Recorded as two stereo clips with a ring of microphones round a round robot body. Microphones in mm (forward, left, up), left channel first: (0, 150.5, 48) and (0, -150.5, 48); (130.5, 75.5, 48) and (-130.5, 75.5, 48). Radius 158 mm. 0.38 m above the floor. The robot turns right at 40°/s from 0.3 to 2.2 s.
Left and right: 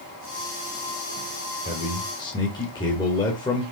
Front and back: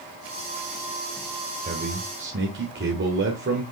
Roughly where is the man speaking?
Behind left.